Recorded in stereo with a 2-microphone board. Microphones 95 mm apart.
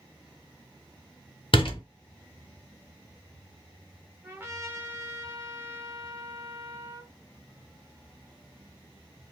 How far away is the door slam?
About 1.5 m.